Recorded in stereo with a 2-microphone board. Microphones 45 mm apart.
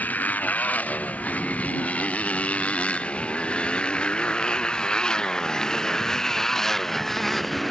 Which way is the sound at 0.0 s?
40° left (ahead or behind).